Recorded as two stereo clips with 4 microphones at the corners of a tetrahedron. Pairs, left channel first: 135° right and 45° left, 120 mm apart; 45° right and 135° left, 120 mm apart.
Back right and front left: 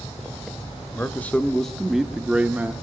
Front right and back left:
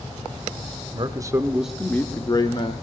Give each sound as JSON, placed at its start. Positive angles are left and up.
{"t": 0.9, "sound": "a man speaking", "azimuth_deg": 155, "distance_m": 0.8}